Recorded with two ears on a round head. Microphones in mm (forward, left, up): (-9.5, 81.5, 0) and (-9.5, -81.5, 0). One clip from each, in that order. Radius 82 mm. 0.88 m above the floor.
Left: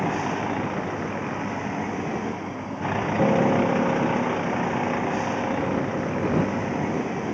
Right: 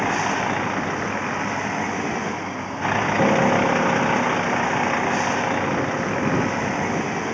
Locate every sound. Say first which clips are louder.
0.0 s a vehicle: right 5 dB; 50° right (ahead or behind)
3.2 s a piano: right 1 dB; 40° right (ahead or behind)